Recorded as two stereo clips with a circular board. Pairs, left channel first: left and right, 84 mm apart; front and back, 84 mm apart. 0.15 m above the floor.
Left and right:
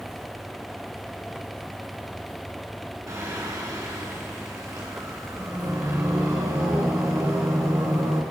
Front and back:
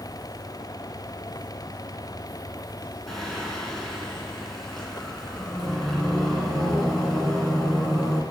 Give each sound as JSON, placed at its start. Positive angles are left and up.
{"t": 3.1, "sound": "singing", "azimuth_deg": -85, "distance_m": 2.0}